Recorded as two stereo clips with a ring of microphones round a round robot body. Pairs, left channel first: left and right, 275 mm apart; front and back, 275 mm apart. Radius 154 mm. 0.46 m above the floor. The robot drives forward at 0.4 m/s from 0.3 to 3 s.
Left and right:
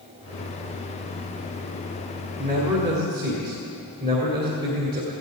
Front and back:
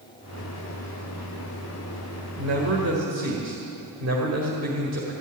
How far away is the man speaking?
About 1.8 m.